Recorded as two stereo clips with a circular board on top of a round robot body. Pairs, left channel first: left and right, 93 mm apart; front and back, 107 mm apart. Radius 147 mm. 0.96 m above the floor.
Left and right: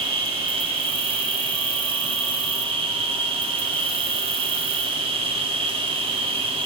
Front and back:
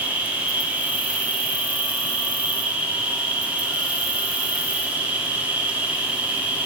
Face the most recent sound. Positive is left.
turn(degrees=-100)